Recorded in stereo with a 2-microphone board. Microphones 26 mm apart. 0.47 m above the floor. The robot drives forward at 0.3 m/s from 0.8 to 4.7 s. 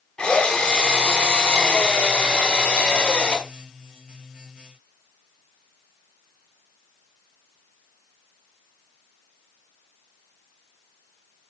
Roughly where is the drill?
Left.